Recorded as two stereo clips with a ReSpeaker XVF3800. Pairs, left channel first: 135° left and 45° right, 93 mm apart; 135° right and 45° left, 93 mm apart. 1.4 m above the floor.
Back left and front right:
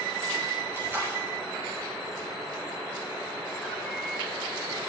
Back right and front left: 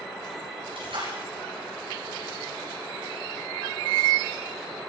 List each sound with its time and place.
0.8 s a splash: 20° left, 10 m